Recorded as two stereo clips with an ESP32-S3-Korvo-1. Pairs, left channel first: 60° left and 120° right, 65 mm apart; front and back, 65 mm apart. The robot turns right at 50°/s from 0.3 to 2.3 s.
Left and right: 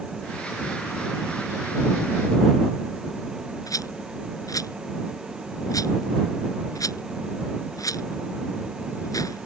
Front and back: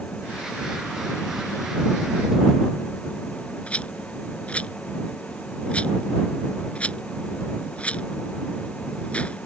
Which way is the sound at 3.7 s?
70° left.